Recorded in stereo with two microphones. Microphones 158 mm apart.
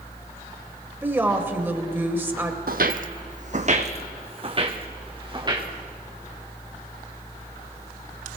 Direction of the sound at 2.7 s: 70° right (ahead or behind).